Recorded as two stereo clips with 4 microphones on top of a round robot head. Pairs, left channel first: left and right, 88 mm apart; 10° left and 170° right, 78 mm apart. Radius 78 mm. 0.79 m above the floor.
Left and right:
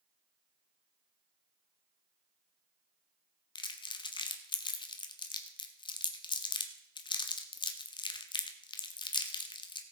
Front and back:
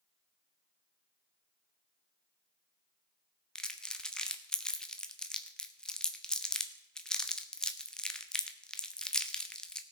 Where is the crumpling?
90° left, 1.2 m.